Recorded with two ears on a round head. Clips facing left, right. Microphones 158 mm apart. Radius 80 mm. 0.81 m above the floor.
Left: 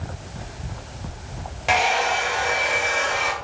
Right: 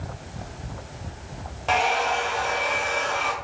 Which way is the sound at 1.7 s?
15° left (ahead or behind).